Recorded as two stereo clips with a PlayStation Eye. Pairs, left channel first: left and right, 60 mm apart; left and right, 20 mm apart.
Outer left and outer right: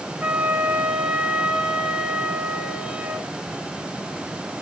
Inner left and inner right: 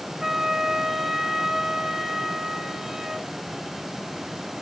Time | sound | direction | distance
0.2 | a flute | 20° right (ahead or behind) | 1.7 m